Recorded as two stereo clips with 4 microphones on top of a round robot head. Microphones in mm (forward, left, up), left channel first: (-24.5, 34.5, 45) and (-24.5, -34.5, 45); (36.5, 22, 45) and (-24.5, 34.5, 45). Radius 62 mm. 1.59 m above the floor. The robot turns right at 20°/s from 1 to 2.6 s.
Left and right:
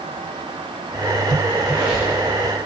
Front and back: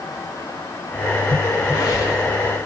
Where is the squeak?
25° right, 8.5 m; by 2.2 s 10° right, 8.5 m.